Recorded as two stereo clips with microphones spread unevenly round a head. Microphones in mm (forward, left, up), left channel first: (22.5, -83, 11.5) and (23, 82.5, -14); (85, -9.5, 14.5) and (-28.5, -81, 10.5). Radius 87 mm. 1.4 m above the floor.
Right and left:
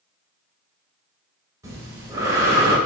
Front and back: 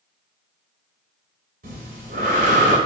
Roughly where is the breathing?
Behind.